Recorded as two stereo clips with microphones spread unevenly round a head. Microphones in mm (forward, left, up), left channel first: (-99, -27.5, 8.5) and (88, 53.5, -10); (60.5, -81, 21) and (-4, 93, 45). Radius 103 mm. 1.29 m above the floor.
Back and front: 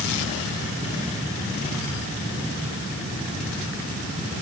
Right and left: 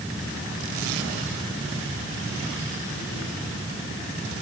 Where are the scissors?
No scissors in this recording.